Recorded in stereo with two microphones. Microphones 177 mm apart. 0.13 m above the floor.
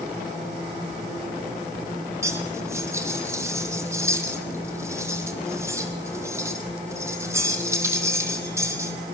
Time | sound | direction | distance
2.2 | cutlery clinking | 15° right (ahead or behind) | 3 m